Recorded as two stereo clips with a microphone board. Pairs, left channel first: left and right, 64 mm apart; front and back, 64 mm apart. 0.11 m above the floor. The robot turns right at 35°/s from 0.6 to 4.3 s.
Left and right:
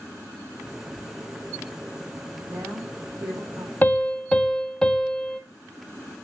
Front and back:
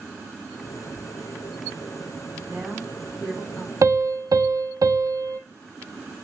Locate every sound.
2.5 s a woman speaking: 120° right, 4.5 m; by 3.7 s 75° right, 4.5 m
3.8 s a piano: 150° left, 0.9 m; by 5.4 s 170° left, 0.9 m